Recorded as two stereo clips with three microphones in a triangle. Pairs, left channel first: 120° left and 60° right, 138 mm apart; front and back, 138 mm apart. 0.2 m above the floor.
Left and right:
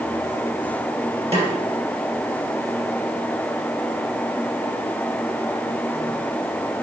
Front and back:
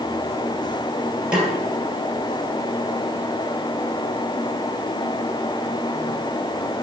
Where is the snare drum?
100° right, 3.5 m.